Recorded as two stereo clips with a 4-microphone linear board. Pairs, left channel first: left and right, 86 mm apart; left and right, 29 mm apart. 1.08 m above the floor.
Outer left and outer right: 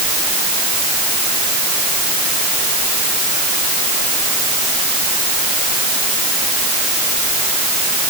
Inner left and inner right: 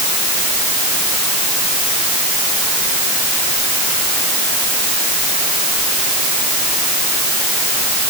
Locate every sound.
Only background noise.